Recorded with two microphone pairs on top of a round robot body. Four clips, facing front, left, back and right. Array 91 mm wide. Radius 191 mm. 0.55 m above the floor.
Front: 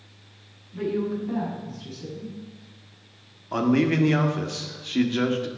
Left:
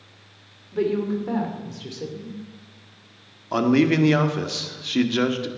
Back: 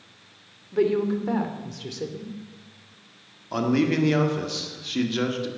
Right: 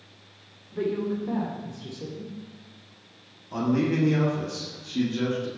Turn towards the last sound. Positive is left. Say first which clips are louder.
# left 6 dB, front 1 dB
turn(degrees=85)